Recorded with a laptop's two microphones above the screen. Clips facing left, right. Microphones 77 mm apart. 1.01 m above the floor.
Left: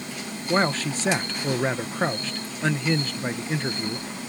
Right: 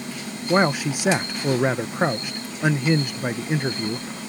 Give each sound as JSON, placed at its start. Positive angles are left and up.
{"t": 0.5, "sound": "a man speaking", "side_deg": -15}